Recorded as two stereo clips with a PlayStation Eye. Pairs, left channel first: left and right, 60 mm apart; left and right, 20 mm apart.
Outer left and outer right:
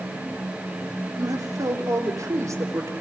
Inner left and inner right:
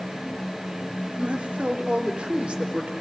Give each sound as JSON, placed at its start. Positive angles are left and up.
{"t": 1.2, "sound": "a man speaking", "side_deg": -80, "distance_m": 3.5}